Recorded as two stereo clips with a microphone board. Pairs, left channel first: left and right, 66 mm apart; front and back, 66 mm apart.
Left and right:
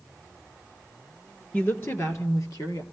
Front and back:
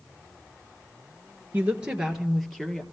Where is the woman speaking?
135° left, 1.4 m; by 2.8 s 80° left, 2.5 m.